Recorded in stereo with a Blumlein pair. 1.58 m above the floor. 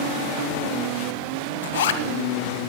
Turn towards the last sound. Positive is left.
turn(degrees=60)